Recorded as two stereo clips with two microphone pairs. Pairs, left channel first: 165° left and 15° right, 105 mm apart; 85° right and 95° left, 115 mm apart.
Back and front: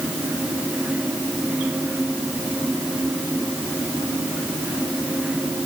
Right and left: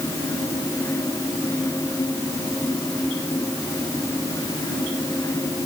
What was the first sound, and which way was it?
Only background noise.